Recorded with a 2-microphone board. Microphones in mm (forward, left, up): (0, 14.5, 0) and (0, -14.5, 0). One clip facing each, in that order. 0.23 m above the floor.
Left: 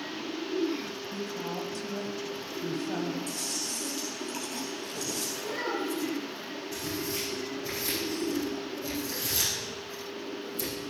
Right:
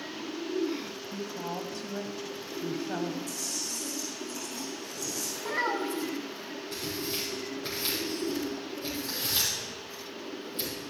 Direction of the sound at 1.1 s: 20° right (ahead or behind).